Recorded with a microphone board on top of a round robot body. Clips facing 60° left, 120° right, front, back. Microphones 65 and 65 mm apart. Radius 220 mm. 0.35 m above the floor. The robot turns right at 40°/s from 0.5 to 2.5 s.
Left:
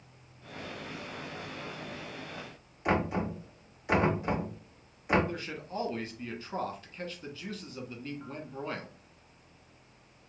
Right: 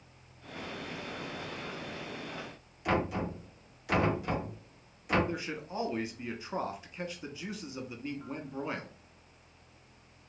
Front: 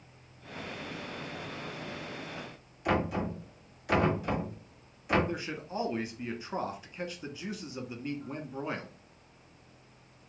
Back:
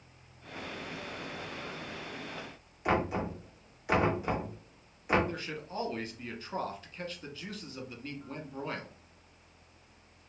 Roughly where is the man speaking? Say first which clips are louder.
Right 1 dB, front 3 dB; ahead right.